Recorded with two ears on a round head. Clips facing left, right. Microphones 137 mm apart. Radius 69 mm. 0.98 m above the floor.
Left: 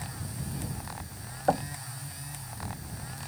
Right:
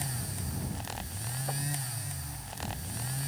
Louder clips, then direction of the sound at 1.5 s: Left 11 dB; 85° left.